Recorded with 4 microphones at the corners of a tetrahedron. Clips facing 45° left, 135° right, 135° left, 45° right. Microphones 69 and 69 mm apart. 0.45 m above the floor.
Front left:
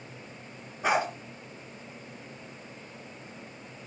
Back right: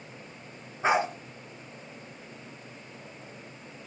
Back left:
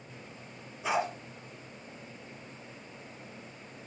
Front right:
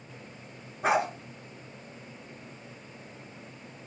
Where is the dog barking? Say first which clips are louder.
Back right 2 dB, front right 5 dB; 75° right, 2 m.